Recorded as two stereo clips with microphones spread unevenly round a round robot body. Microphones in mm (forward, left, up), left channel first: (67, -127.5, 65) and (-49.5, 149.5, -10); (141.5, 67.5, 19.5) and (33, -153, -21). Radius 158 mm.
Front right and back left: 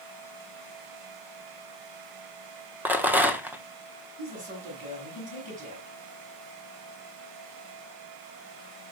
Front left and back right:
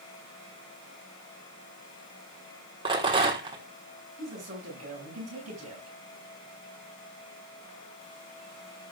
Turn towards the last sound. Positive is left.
turn(degrees=175)